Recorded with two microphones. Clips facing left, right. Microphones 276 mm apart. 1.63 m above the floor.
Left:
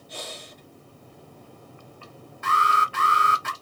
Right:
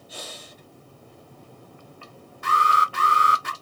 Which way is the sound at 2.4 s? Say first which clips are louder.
Right 1 dB; 40° right (ahead or behind).